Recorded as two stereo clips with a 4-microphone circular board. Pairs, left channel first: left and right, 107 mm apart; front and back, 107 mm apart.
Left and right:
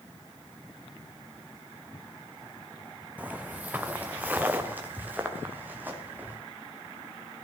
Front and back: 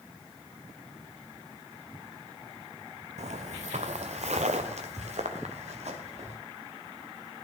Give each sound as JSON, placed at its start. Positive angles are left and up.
{"t": 3.2, "sound": "footsteps", "azimuth_deg": -170, "distance_m": 0.6}